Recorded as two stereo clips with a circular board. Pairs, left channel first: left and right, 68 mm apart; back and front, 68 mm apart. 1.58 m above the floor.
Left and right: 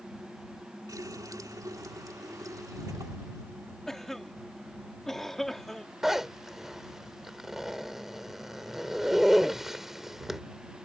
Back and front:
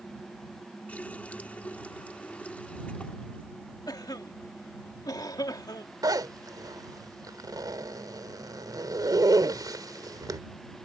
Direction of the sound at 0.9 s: 110° right.